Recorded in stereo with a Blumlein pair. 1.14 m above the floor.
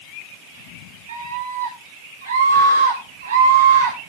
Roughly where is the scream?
Ahead right.